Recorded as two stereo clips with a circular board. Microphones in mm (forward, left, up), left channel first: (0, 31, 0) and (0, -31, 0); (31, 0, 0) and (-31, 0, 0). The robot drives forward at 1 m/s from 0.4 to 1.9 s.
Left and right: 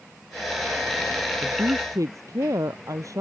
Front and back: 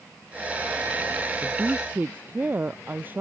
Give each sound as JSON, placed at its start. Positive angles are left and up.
{"t": 1.4, "sound": "a woman speaking", "azimuth_deg": -120}